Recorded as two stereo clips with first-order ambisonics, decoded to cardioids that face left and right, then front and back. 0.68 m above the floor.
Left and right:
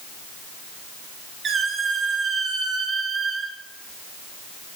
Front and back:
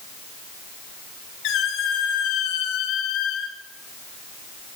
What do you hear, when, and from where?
1.4 s a squeak: 30° right, 2.5 m